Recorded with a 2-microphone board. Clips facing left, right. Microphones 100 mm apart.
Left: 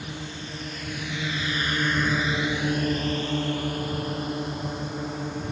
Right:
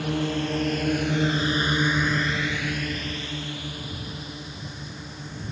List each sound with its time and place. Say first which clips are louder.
0.0 s a drone: right 11 dB; 75° right (ahead or behind); by 5.5 s 60° left (ahead or behind)